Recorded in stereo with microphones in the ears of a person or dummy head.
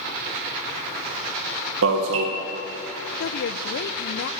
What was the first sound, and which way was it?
An alarm, 75° right (ahead or behind).